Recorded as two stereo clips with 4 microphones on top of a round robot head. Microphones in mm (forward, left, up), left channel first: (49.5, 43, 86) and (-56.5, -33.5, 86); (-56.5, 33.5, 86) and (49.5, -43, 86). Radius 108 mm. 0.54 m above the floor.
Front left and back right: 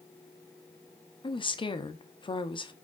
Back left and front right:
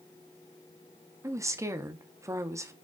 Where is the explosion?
I don't hear an explosion.